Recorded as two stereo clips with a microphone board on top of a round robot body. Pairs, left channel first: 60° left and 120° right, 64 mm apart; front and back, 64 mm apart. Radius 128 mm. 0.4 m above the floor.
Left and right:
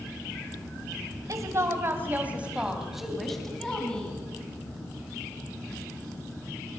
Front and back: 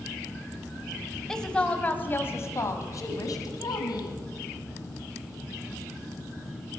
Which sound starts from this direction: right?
A woman speaking, at 1.3 s.